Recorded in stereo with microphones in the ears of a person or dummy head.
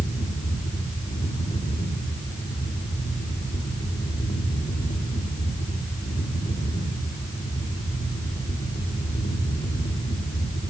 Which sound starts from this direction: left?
A fan, at 0.0 s.